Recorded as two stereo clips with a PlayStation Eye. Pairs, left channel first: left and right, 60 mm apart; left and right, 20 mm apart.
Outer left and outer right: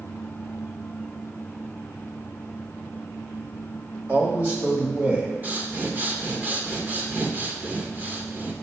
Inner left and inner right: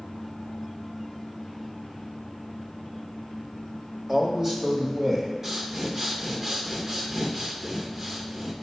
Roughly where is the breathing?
Right.